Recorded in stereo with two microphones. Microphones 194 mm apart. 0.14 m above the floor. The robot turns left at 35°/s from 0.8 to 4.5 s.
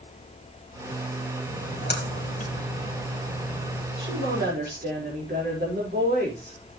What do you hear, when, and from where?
1.5 s a splash: 70° left (ahead or behind), 2.5 m; by 3.9 s 5° right (ahead or behind), 2.5 m
4.0 s a woman speaking: 70° right (ahead or behind), 5.5 m; by 6.8 s 55° right (ahead or behind), 5.5 m